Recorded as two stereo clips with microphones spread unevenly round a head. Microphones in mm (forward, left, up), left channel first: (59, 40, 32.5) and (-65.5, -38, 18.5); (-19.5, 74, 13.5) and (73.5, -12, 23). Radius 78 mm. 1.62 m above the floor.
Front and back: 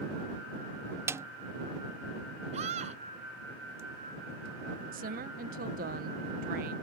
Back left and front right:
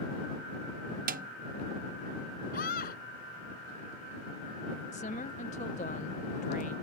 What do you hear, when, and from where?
1.1 s a snare drum: 75° right
2.5 s a scream: 165° left
4.9 s a woman speaking: 175° right